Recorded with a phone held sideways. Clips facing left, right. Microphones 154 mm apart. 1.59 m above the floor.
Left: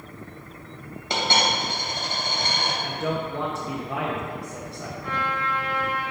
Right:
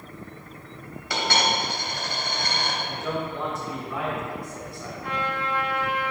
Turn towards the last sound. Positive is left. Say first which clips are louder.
# even
turn(degrees=-75)  # may be behind; listen again after turning